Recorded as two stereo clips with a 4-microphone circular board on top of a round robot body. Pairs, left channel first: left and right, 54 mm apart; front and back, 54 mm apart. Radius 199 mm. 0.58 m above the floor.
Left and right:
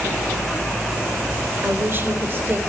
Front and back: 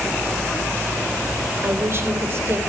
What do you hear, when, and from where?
1.6 s a woman speaking: 140° right, 4 m